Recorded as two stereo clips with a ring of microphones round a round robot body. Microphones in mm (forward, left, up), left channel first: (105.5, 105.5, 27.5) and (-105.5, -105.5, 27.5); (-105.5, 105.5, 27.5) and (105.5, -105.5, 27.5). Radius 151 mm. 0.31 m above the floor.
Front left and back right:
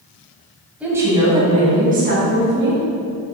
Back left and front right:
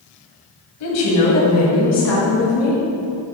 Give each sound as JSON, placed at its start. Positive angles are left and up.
{"t": 0.8, "sound": "a woman speaking", "azimuth_deg": 140, "distance_m": 2.5}